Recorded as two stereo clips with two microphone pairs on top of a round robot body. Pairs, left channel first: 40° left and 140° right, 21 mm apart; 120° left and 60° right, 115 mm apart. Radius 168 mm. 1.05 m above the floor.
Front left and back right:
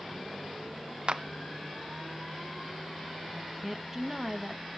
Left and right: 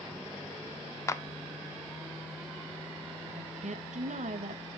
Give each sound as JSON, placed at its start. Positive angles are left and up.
{"t": 1.1, "sound": "a clap", "azimuth_deg": 180, "distance_m": 0.6}
{"t": 3.3, "sound": "a woman speaking", "azimuth_deg": -60, "distance_m": 1.3}